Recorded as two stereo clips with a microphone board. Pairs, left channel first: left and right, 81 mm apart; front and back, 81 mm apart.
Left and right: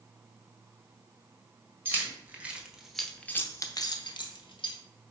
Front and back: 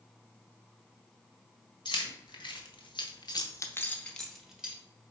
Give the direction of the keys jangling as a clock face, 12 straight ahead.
1 o'clock.